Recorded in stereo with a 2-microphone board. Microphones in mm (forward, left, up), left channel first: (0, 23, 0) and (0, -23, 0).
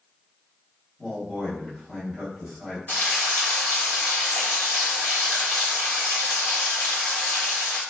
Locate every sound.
1.0 s a man speaking: 10° right (ahead or behind), 1.5 m
2.9 s frying: 40° left (ahead or behind), 1.1 m